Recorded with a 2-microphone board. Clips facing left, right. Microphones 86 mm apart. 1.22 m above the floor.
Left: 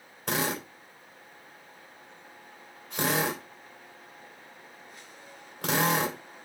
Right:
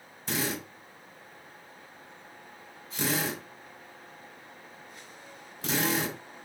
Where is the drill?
60° left (ahead or behind), 3.5 m.